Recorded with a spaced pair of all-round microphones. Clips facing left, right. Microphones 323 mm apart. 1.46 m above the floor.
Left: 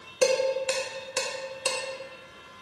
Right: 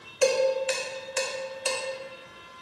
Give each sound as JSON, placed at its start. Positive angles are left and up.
{"t": 0.2, "sound": "dishes clattering", "side_deg": 50, "distance_m": 0.8}